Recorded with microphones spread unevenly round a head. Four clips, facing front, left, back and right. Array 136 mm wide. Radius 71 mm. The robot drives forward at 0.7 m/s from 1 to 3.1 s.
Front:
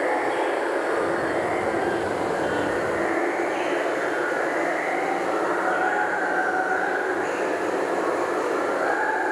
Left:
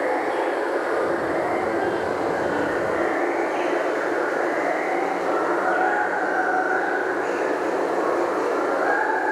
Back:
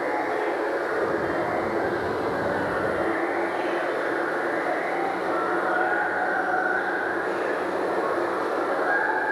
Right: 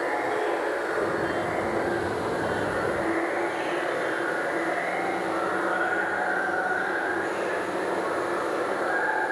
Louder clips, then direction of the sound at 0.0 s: Left 4 dB, front 2 dB; 55° left.